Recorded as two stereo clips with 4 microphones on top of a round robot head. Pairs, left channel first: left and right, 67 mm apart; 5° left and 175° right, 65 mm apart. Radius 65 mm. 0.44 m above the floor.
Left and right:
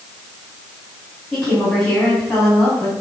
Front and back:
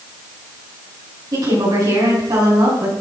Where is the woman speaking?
175° left, 4.5 m.